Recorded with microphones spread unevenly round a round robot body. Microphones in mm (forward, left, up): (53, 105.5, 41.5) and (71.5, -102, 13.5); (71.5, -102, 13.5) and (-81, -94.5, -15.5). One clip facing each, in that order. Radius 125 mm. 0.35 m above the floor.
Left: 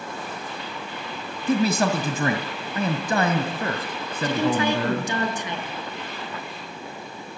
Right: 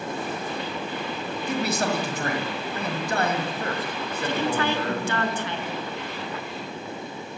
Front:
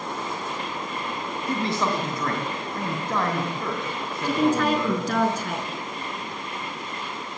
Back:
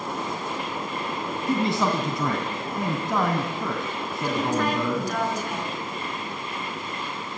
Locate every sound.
1.5 s a man speaking: 95° left, 2 m
4.2 s a woman speaking: 20° left, 5 m